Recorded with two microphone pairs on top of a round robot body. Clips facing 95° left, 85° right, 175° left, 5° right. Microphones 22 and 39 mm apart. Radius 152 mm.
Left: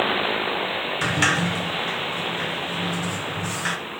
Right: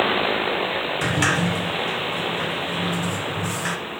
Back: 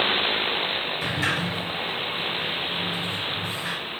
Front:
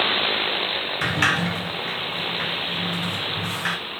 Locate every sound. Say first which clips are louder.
1.0 s a sliding door: left 1 dB, front 7 dB; 20° left, 0.9 m